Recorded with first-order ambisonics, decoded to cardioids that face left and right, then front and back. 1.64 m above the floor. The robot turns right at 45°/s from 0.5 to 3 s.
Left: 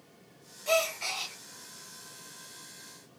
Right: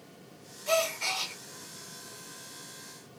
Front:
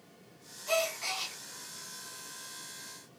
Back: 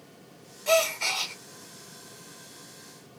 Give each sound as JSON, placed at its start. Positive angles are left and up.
{"t": 0.7, "sound": "a gasp", "azimuth_deg": 170, "distance_m": 1.0}